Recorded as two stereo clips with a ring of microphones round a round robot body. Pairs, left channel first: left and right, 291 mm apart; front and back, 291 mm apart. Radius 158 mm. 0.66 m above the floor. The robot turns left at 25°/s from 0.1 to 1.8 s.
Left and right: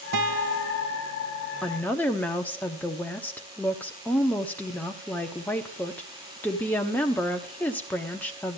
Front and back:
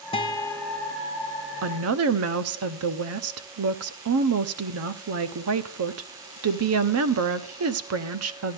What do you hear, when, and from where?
0.1 s a guitar: 70° right, 1.2 m; by 0.9 s 90° right, 1.2 m
1.6 s a woman speaking: straight behind, 0.9 m; by 8.6 s 175° left, 0.9 m